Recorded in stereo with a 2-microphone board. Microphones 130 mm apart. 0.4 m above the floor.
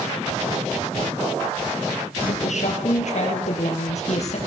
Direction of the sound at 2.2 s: 65° left (ahead or behind).